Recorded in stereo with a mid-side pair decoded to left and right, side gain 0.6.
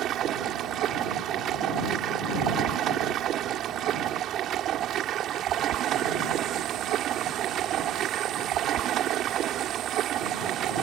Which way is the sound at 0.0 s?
55° right.